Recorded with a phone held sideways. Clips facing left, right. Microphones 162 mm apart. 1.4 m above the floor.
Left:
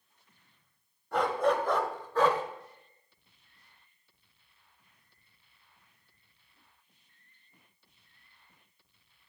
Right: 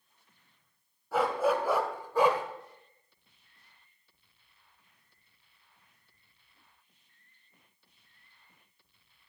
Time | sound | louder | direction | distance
1.1 | a dog barking | even | 5° right (ahead or behind) | 1.6 m